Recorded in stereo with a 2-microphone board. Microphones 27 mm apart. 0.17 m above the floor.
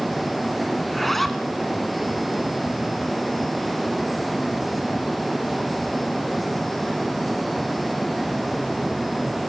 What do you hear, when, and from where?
0.8 s a zipper: 5° left (ahead or behind), 1.3 m